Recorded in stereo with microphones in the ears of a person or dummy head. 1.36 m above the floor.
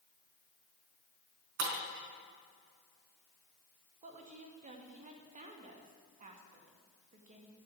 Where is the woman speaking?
40° right (ahead or behind), 2 m.